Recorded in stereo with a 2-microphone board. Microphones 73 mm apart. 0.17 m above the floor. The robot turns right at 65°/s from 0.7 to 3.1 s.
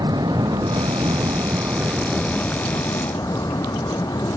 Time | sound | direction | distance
0.0 | an aircraft | 95° right | ?